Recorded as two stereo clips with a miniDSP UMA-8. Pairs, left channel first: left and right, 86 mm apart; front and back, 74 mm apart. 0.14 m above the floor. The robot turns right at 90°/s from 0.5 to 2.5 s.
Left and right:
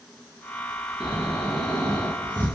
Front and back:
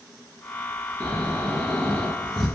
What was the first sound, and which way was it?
Snoring, 40° right.